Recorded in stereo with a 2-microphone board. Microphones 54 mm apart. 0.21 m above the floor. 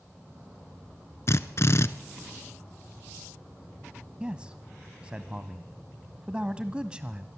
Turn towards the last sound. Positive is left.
turn(degrees=-20)  # may be behind; listen again after turning